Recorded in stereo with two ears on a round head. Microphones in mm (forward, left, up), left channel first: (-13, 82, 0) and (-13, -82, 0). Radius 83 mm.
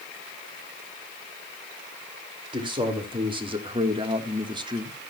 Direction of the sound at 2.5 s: 25° right (ahead or behind).